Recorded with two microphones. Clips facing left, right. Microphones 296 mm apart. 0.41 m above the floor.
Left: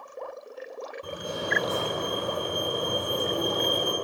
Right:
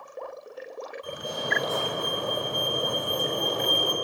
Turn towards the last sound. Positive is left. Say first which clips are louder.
# left 2 dB
turn(degrees=70)  # may be behind; listen again after turning